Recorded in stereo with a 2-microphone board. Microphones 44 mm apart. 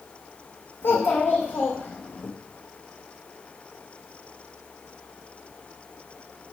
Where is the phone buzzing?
I don't hear a phone buzzing.